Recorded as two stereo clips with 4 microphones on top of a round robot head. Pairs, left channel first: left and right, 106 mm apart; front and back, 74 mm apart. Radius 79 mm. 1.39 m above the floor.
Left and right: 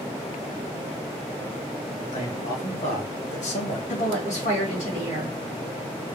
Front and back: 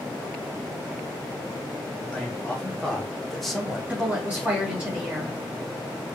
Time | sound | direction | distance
2.1 | a man speaking | 75° left | 2 m
3.9 | a woman speaking | 100° left | 2.5 m